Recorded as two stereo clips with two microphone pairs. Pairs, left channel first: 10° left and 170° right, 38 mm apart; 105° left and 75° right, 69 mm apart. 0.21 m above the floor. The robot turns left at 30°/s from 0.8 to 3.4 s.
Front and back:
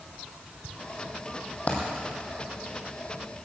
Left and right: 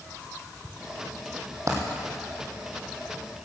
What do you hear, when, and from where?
1.7 s a dropped coin: 40° right, 2.5 m; by 1.8 s 45° right, 2.5 m